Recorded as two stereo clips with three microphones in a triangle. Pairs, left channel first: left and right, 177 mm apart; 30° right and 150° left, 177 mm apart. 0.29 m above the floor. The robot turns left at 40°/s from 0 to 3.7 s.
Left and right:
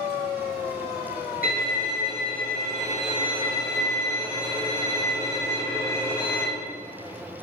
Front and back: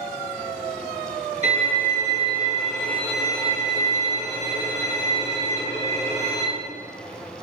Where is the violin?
110° left, 3.5 m; by 6.5 s 20° left, 3.5 m.